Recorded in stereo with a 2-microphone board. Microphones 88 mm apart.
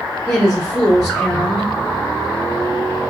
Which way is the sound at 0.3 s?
10° left (ahead or behind).